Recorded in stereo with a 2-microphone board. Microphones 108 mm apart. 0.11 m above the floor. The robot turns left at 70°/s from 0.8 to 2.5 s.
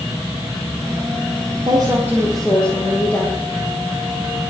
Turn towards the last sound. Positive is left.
turn(degrees=170)